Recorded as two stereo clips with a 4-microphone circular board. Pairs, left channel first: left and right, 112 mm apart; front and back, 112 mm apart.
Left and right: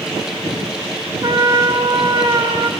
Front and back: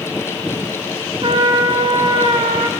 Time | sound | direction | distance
1.2 | a trumpet | 140° right | 1.7 m